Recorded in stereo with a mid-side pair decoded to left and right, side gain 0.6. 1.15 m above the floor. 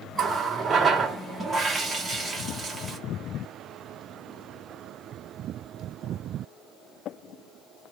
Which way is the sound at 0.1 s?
30° right.